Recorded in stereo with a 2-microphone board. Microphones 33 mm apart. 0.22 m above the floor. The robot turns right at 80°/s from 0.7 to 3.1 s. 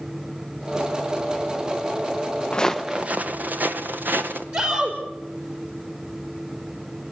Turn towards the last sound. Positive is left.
turn(degrees=-45)  # may be behind; listen again after turning